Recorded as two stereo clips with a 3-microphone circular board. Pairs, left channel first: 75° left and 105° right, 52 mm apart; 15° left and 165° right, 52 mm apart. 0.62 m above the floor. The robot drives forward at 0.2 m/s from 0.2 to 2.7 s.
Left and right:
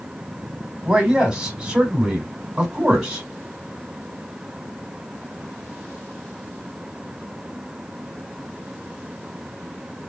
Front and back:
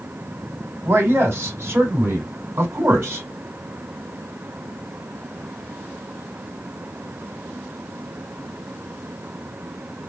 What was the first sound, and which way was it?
A man speaking, 170° right.